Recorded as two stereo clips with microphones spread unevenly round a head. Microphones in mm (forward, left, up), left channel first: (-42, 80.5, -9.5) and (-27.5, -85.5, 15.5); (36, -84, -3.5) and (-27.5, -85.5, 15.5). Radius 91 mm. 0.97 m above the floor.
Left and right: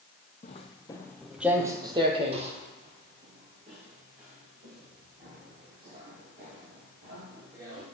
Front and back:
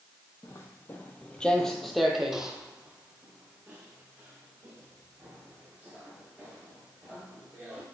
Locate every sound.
0.4 s footsteps: 60° left, 1.1 m; by 7.8 s 115° right, 6.5 m